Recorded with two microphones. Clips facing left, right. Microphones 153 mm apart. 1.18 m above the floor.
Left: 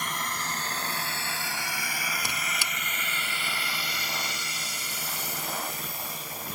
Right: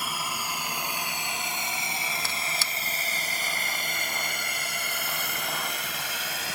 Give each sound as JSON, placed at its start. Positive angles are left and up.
{"t": 0.0, "sound": "a drone", "side_deg": -5}
{"t": 2.2, "sound": "a squeak", "side_deg": 15}